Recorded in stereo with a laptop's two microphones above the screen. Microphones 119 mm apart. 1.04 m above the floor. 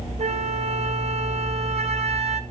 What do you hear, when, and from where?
0.2 s a flute: 60° right (ahead or behind), 1.0 m